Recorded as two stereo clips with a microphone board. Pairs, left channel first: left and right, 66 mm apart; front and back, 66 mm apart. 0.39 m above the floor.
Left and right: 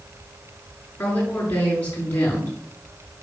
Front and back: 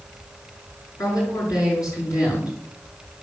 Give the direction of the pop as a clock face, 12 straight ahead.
No pop in this recording.